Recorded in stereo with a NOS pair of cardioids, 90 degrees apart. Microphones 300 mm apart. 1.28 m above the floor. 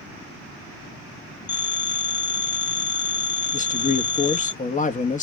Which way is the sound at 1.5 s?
35° left.